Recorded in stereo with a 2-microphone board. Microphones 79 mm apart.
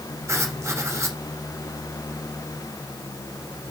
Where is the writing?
40° right (ahead or behind), 2.5 m.